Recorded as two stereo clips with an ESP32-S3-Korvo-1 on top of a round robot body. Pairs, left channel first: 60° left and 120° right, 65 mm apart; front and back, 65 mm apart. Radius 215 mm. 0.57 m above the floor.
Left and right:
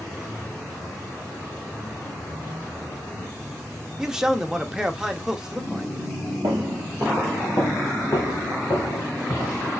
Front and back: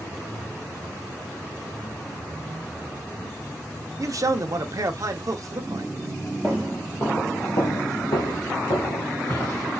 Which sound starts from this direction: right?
Footsteps, at 6.4 s.